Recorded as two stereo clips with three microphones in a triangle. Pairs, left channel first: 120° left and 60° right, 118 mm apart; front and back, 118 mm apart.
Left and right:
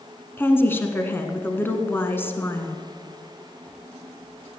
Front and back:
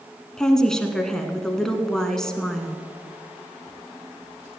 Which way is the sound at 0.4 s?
80° left.